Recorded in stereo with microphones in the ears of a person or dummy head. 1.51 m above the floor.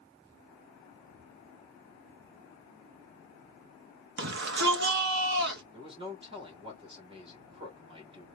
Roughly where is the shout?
Right.